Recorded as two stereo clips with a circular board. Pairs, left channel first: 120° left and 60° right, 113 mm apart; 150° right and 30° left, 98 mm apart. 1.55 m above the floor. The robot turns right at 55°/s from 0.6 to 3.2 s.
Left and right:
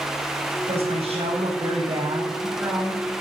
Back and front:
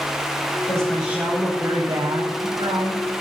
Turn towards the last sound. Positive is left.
turn(degrees=45)